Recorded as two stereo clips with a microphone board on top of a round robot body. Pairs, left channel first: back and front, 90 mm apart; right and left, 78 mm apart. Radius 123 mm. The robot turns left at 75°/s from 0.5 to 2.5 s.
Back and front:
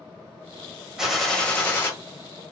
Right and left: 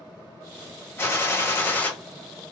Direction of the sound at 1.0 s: 75° right.